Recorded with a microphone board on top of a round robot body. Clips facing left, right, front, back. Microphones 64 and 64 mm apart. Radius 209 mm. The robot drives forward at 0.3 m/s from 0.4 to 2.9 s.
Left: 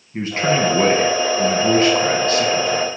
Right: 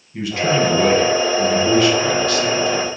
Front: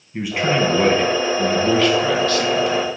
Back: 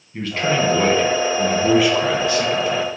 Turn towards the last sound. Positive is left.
turn(degrees=130)